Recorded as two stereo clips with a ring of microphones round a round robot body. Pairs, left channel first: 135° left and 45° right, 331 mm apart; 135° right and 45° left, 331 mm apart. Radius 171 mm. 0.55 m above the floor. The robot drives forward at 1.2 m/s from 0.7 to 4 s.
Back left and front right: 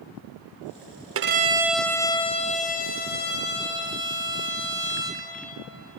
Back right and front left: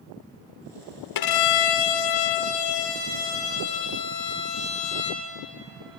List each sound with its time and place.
1.1 s a violin: 100° right, 0.9 m; by 5.3 s 165° right, 3.5 m